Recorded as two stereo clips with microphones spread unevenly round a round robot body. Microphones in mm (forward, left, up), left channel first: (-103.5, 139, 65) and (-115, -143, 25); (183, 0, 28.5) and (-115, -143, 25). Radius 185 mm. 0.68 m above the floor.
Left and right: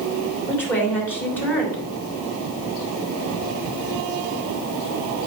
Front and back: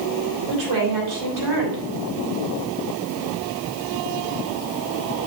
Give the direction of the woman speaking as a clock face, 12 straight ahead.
6 o'clock.